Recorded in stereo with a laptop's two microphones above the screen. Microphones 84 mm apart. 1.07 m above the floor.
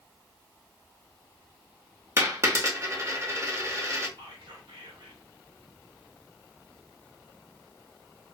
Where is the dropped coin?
35° right (ahead or behind), 0.8 m.